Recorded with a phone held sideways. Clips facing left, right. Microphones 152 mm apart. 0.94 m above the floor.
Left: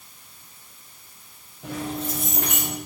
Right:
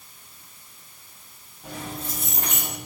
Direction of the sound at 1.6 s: 80° left.